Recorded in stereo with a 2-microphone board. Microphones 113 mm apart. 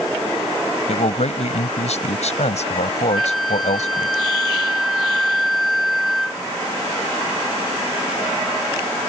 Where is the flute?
Centre (ahead or behind).